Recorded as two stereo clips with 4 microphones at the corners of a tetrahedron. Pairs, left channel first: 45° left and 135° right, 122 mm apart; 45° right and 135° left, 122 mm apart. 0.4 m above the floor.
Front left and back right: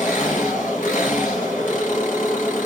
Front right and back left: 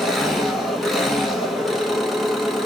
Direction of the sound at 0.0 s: 45° left.